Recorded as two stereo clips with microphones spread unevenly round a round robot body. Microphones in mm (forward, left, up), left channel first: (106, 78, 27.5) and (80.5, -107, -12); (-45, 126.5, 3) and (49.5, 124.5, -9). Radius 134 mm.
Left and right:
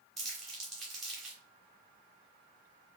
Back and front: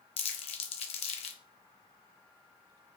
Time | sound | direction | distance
0.2 | crumpling | 175° left | 0.5 m